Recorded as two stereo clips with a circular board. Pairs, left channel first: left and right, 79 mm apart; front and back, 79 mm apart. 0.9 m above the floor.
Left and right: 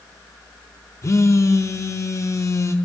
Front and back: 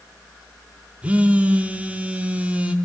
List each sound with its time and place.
1.0 s a phone buzzing: 115° left, 0.5 m